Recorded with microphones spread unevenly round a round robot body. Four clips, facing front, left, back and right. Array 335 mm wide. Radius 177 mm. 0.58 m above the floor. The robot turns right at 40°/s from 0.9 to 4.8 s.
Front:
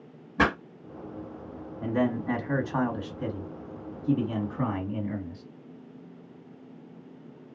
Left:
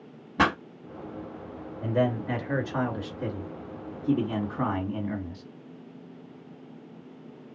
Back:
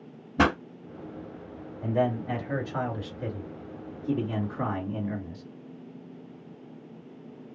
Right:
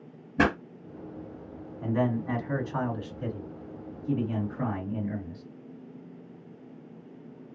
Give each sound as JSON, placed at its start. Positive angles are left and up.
{"t": 0.4, "sound": "a pop", "azimuth_deg": -140, "distance_m": 1.6}
{"t": 1.8, "sound": "a man speaking", "azimuth_deg": -25, "distance_m": 1.9}